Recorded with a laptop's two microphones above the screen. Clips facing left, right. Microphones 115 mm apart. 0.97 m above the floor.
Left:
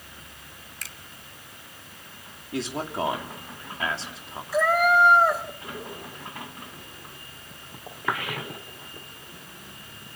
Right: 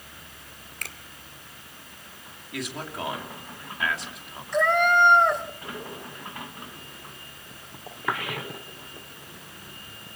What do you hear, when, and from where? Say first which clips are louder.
0.8 s a finger snap: right 5 dB; 55° right (ahead or behind), 1.8 m
2.5 s a man speaking: left 5 dB; 30° left (ahead or behind), 2.5 m
4.5 s a cat meowing: left 1 dB; 5° left (ahead or behind), 3 m